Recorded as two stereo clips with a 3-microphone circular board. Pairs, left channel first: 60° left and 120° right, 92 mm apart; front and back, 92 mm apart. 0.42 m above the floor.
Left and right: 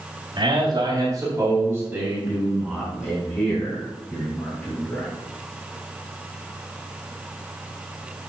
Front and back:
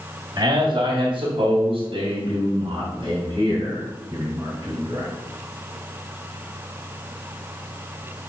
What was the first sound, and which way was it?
A man speaking, 145° right.